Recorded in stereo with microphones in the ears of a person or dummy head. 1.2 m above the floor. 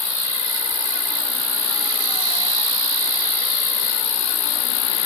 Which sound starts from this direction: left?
An insect, at 0.0 s.